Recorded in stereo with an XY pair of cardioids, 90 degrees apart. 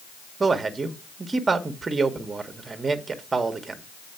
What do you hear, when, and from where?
0.4 s a man speaking: 35° right, 1.0 m